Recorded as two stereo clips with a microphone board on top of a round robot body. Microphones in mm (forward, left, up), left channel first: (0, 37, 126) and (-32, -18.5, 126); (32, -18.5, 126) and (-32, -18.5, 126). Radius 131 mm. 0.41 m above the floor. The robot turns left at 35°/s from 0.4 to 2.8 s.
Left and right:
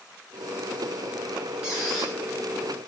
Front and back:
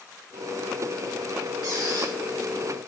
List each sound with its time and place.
1.6 s a squeak: 160° left, 4 m; by 2.1 s 140° left, 4 m